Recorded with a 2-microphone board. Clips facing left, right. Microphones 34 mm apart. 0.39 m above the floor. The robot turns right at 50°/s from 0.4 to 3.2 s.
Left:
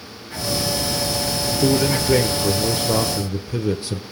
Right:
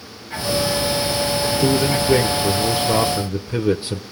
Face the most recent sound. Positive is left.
turn(degrees=-25)  # may be behind; listen again after turning